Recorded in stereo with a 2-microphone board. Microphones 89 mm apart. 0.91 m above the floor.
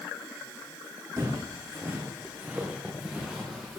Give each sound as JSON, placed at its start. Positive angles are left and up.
{"t": 1.2, "sound": "footsteps", "side_deg": -40, "distance_m": 2.5}